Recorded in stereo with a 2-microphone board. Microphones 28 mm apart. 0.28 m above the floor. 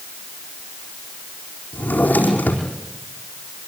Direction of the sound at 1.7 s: 75° left (ahead or behind).